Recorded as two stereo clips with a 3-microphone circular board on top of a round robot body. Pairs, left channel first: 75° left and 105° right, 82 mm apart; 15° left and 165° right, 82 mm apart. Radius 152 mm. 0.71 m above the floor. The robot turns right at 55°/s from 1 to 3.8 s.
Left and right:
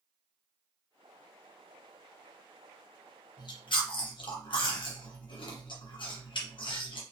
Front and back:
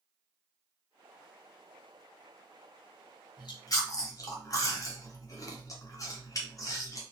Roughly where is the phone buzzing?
No phone buzzing in this recording.